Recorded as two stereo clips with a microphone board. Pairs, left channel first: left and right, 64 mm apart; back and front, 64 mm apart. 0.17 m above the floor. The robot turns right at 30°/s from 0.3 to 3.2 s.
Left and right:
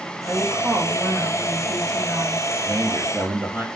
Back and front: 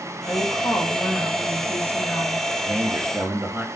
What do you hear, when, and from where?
0.2 s a woman speaking: 165° right, 7 m; by 2.4 s 105° right, 7 m
2.6 s a man speaking: 65° right, 3 m; by 3.6 s 50° right, 3 m